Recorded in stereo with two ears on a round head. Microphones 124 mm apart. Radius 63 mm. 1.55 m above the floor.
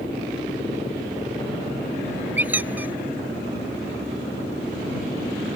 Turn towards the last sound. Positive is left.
turn(degrees=-10)  # may be behind; listen again after turning